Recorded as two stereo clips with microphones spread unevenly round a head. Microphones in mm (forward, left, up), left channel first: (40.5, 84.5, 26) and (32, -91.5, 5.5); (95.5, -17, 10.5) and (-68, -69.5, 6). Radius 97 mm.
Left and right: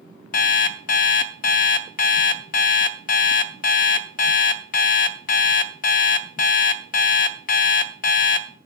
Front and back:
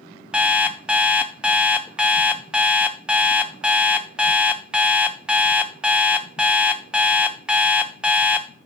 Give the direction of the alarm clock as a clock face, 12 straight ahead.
8 o'clock.